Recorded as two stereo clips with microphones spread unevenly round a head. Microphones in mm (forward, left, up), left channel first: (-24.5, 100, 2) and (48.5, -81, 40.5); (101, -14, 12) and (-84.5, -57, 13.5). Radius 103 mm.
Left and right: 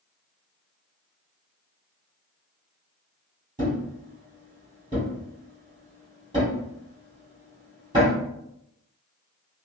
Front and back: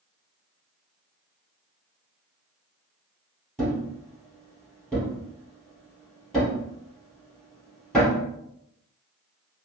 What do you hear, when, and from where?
3.6 s a thud: 70° right, 2.0 m